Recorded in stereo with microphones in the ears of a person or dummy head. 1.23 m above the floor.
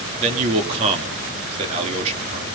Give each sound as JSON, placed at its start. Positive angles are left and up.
{"t": 0.2, "sound": "a man speaking", "side_deg": -35, "distance_m": 2.5}